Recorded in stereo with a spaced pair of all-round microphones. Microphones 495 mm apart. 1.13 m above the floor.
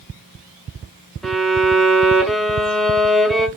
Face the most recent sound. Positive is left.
turn(degrees=0)  # may be behind; listen again after turning